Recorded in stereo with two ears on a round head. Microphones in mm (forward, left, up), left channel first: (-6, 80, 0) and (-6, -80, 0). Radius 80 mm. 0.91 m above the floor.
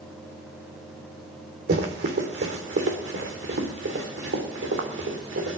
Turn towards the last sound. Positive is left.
turn(degrees=-80)